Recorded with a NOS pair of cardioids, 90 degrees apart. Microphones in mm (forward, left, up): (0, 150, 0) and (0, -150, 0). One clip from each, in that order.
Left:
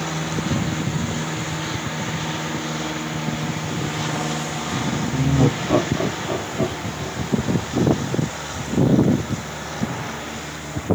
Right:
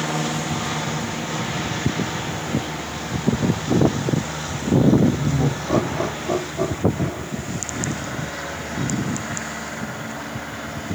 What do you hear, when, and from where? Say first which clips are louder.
5.1 s laughter: left 3 dB; 45° left, 0.9 m; by 7.6 s 35° right, 1.8 m